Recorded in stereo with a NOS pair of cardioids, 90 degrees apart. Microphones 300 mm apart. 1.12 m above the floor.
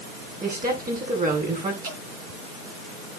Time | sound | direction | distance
0.4 | a woman speaking | 30° right | 9 m
1.8 | dripping | 45° right | 7 m